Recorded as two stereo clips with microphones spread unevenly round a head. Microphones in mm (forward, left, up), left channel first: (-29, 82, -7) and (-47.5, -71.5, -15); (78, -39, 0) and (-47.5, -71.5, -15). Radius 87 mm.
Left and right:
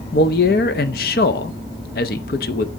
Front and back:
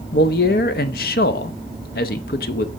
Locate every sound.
0.1 s a man speaking: 45° left, 0.6 m